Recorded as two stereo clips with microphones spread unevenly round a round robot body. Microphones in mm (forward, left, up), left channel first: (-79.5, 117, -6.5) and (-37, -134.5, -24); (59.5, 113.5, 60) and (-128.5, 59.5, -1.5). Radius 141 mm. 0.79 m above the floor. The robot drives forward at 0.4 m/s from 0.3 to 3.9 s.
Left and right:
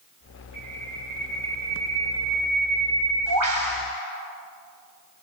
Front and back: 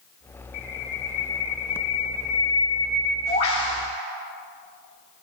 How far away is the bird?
About 7 m.